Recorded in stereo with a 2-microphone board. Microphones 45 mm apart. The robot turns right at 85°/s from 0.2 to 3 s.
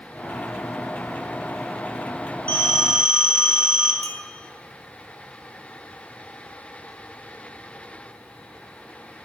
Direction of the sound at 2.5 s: 150° left.